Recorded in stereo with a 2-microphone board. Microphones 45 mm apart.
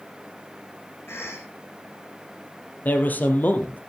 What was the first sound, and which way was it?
A cough, 70° left (ahead or behind).